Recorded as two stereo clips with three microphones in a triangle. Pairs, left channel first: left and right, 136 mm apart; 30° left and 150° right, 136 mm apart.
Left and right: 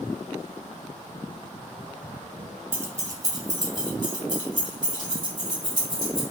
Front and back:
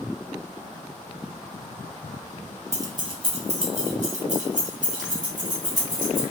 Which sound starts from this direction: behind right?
Keys jangling, at 2.7 s.